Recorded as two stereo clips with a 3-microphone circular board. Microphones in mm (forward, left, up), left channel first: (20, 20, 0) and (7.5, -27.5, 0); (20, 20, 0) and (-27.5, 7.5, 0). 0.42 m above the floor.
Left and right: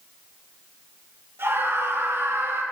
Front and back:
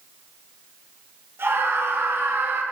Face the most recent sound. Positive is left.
turn(degrees=-125)